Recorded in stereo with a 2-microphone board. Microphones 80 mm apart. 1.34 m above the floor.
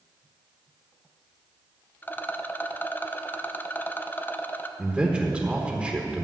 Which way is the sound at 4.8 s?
10° right (ahead or behind).